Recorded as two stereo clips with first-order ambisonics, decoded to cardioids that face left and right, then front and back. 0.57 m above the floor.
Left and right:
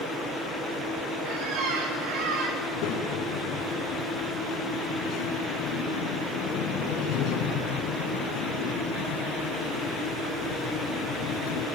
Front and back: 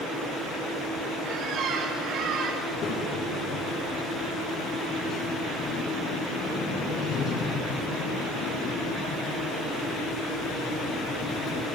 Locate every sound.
1.2 s a squeak: 130° right, 6 m
2.6 s a child speaking: 60° left, 4 m